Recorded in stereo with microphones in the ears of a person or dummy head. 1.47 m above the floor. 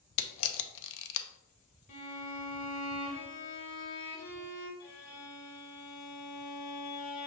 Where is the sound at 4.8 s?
50° left (ahead or behind), 1.0 m.